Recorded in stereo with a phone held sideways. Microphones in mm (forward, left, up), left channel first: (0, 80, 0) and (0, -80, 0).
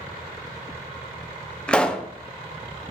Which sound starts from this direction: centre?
A pop, at 1.7 s.